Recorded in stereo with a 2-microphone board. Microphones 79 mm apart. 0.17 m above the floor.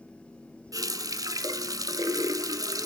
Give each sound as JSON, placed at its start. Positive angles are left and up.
{"t": 0.7, "sound": "a running tap", "side_deg": -50, "distance_m": 1.0}